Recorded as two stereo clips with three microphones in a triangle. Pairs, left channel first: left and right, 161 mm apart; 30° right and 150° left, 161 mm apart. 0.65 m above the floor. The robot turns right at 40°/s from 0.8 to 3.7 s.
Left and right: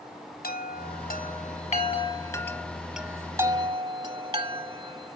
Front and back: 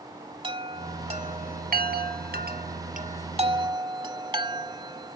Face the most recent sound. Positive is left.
turn(degrees=-150)